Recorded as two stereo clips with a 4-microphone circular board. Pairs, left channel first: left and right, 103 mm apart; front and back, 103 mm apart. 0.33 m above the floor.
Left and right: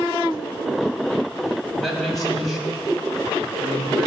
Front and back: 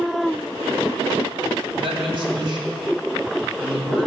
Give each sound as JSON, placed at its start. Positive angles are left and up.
{"t": 1.8, "sound": "a man speaking", "azimuth_deg": 180, "distance_m": 2.0}